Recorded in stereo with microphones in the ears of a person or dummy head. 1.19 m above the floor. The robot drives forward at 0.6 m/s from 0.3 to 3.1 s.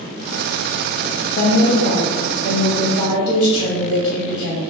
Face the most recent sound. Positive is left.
turn(degrees=20)  # may be behind; listen again after turning